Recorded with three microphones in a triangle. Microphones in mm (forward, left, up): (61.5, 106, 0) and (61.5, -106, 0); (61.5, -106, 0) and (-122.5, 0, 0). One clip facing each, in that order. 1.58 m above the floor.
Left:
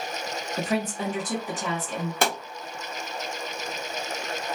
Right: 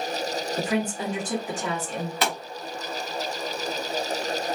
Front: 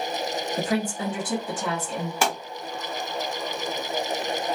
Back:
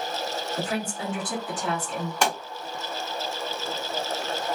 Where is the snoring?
I don't hear snoring.